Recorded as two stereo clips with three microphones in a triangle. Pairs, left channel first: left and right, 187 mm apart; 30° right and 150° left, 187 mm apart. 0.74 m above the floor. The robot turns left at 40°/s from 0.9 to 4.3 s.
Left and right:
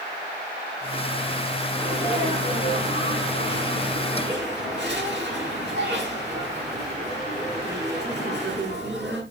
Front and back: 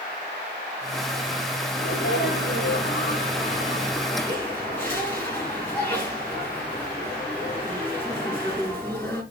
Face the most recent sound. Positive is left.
turn(degrees=-110)